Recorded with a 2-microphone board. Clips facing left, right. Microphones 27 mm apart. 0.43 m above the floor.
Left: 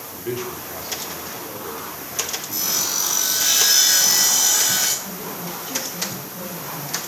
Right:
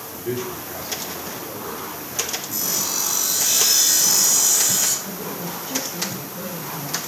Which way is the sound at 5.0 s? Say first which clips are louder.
Right 1 dB; 45° left (ahead or behind).